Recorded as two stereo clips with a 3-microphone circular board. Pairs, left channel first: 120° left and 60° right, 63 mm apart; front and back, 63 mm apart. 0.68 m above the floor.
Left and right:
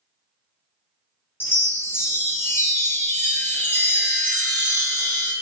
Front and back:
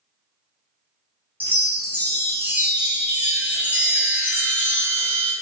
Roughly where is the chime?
Behind left.